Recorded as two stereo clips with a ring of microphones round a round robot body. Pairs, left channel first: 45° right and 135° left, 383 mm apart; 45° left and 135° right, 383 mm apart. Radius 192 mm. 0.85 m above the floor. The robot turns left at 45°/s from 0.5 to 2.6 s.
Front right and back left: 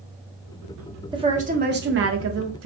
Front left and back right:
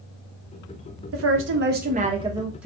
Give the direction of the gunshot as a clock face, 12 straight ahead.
No gunshot in this recording.